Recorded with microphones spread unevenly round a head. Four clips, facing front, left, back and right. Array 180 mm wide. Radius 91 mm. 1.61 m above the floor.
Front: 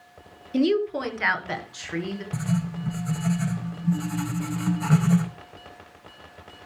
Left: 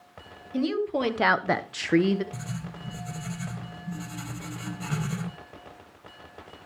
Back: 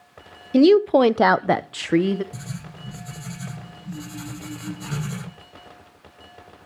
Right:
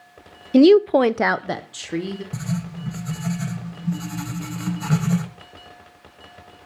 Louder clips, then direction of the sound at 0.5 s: Right 14 dB, back 9 dB; 115° right.